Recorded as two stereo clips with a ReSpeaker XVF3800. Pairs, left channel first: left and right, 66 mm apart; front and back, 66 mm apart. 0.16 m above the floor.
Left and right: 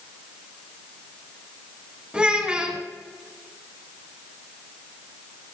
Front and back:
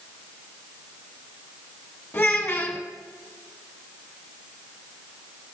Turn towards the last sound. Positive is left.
turn(degrees=-35)